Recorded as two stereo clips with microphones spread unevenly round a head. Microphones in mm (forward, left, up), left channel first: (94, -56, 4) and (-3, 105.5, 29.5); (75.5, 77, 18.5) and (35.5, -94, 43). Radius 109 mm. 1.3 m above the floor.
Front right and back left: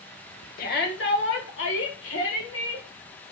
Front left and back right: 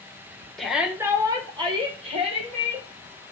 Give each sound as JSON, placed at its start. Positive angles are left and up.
{"t": 0.6, "sound": "a shout", "azimuth_deg": -10, "distance_m": 0.7}